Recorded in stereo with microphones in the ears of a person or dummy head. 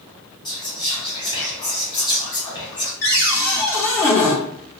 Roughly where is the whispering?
Left.